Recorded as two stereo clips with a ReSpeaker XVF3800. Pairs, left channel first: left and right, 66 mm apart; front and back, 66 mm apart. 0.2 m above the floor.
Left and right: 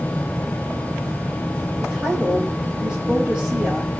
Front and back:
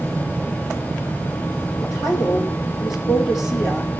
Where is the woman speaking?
20° right, 8 m.